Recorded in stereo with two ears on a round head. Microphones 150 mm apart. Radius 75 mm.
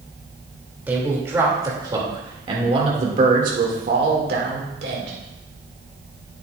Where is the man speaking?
10° right (ahead or behind), 2.5 m; by 5.2 s 75° right (ahead or behind), 2 m.